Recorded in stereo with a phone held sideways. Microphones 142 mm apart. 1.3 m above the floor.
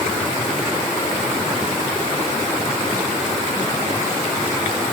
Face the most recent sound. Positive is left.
No sound to turn to.